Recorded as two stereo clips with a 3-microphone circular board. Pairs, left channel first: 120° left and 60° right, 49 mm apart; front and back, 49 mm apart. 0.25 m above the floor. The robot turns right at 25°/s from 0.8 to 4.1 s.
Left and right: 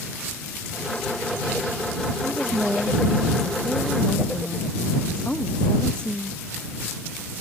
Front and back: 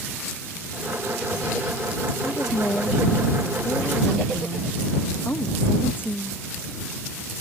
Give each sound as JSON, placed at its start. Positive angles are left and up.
{"t": 2.2, "sound": "a woman speaking", "azimuth_deg": 0}